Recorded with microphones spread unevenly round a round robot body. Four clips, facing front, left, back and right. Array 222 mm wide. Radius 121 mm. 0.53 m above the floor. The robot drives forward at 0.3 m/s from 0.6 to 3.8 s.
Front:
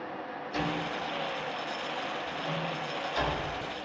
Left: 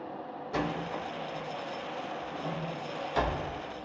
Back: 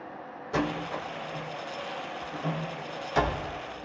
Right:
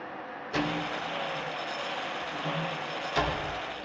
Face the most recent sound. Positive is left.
turn(degrees=-175)